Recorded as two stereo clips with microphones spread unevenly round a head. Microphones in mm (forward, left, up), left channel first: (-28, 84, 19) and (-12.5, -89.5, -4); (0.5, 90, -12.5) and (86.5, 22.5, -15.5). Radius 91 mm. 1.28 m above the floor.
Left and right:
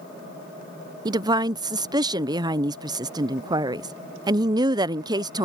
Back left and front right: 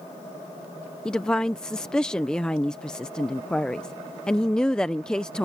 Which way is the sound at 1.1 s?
135° right.